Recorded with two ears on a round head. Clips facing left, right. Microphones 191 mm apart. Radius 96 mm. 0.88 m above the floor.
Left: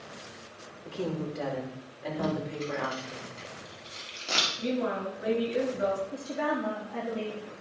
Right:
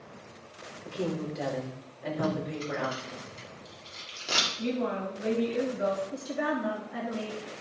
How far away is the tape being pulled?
About 2.5 m.